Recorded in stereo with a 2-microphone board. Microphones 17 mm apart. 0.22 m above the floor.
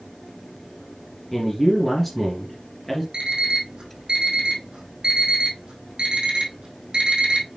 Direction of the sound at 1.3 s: 10° left (ahead or behind).